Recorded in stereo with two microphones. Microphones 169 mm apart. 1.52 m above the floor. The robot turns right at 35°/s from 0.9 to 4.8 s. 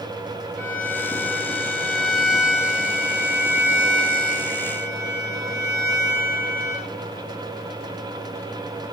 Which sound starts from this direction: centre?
A violin, at 0.6 s.